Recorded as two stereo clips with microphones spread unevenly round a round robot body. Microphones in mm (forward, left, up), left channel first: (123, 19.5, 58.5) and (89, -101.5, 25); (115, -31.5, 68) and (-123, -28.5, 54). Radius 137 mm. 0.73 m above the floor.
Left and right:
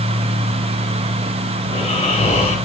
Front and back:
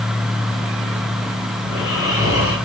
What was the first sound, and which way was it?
Snoring, 40° left.